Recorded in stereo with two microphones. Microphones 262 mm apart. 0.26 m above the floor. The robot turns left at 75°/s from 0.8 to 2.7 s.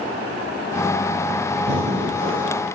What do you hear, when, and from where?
1.6 s breathing: 65° right, 0.6 m; by 2.6 s 130° right, 0.6 m